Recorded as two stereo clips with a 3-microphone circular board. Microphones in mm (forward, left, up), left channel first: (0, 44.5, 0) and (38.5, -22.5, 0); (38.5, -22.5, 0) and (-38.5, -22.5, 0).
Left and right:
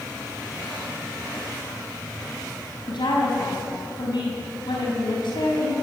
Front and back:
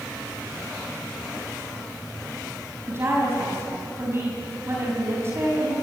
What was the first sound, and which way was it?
A woman speaking, 125° left.